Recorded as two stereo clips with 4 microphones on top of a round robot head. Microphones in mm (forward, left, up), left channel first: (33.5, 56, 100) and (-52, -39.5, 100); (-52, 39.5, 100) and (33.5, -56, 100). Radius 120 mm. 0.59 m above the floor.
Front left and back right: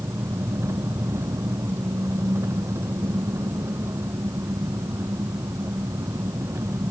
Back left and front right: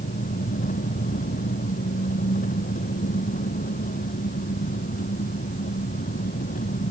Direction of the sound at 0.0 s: 155° left.